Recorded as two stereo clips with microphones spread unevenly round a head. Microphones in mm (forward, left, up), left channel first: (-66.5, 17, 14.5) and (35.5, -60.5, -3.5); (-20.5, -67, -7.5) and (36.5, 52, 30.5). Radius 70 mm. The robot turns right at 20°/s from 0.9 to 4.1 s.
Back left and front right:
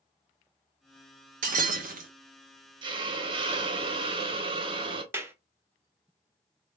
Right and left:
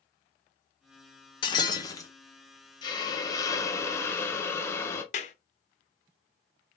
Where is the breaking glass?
55° right, 1.2 m; by 2.1 s 40° right, 1.2 m.